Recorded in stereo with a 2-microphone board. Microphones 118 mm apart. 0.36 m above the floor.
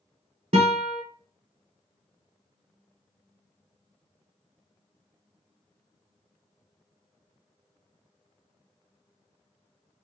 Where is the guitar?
65° right (ahead or behind), 0.9 m.